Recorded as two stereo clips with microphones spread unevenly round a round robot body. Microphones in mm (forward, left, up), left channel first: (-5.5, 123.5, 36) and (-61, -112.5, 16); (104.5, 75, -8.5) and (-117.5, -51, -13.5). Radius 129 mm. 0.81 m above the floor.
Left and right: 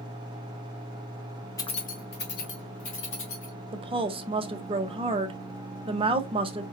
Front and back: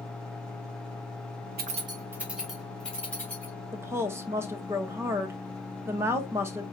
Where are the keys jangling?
155° left, 0.7 m; by 3.5 s 115° left, 3.5 m.